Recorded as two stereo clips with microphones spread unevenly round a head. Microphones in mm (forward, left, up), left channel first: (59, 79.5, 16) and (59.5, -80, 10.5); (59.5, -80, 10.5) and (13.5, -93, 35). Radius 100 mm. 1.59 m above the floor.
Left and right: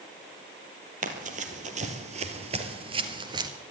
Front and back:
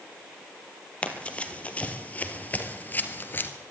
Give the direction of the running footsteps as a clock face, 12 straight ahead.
2 o'clock.